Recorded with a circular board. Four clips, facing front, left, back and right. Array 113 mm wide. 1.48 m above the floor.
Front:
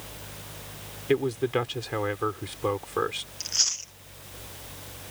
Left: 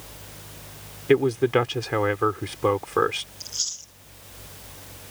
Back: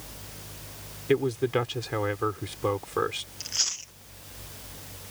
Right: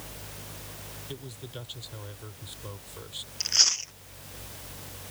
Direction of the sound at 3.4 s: 95° right.